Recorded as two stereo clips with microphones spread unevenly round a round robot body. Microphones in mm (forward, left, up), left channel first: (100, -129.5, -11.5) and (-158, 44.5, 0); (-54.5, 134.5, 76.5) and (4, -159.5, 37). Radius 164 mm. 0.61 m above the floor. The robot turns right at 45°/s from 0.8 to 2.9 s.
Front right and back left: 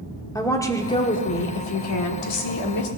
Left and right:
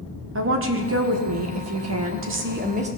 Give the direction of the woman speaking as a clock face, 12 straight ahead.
4 o'clock.